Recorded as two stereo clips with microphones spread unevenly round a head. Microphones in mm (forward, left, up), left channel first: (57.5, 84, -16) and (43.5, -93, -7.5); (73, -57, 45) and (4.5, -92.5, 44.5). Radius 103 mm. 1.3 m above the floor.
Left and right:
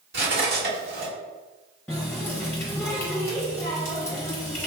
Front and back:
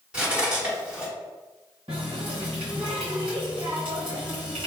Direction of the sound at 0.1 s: 75° right.